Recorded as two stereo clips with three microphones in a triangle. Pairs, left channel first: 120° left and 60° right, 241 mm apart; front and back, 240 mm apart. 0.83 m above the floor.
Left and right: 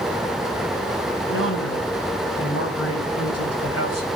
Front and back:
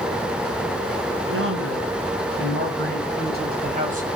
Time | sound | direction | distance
1.3 | a man speaking | 150° left | 5.5 m